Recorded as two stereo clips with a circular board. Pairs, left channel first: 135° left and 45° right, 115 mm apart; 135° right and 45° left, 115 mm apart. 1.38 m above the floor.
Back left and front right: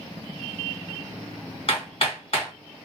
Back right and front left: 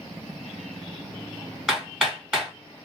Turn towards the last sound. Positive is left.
turn(degrees=130)